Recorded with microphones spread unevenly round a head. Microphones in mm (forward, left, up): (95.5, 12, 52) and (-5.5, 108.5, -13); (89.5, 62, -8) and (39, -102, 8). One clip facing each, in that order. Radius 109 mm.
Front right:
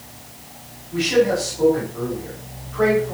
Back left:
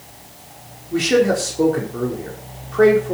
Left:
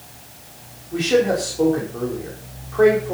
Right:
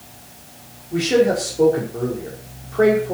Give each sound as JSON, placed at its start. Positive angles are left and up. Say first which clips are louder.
{"t": 0.9, "sound": "a man speaking", "louder": "back left 2 dB, right 1 dB", "azimuth_deg": 175, "distance_m": 5.0}